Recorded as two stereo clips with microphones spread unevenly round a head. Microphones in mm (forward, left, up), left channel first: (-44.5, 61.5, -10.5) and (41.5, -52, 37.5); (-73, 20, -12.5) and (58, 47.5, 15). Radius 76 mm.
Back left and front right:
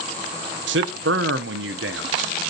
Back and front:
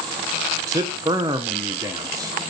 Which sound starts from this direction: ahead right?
A man speaking, at 0.7 s.